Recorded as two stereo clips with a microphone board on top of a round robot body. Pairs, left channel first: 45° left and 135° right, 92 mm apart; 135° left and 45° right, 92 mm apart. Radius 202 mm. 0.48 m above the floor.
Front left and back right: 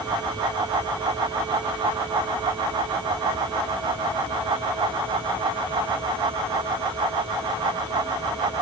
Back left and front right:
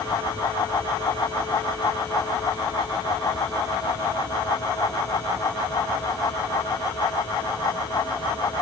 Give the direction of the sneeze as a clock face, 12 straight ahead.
I don't hear a sneeze.